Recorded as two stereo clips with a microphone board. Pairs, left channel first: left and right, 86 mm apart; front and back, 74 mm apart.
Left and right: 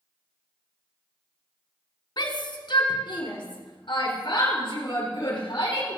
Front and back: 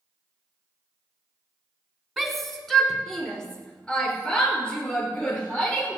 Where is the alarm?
No alarm in this recording.